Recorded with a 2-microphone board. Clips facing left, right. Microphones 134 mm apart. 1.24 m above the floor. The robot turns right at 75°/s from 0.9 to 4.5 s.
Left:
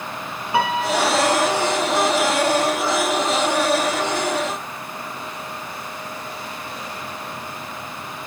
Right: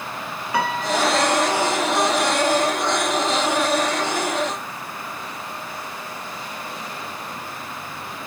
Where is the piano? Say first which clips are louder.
Left 2 dB; 155° left, 2.5 m; by 2.1 s 120° right, 2.5 m.